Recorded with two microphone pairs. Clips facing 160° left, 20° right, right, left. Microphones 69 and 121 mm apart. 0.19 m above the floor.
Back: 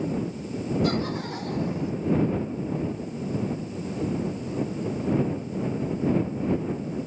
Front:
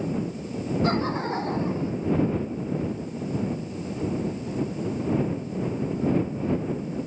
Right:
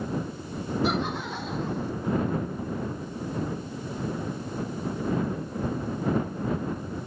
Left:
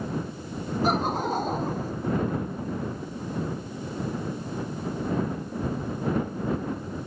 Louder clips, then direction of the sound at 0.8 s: Front 2 dB, left 5 dB; 40° left.